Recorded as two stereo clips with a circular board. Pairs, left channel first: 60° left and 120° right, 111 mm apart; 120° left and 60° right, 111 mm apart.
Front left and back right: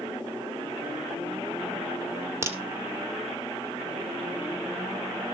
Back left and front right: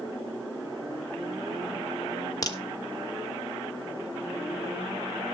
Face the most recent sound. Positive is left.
turn(degrees=175)